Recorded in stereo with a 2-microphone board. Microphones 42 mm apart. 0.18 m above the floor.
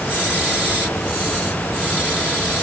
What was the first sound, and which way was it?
Only background noise.